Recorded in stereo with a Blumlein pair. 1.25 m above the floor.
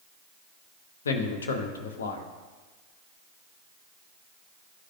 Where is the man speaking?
65° left, 0.8 m.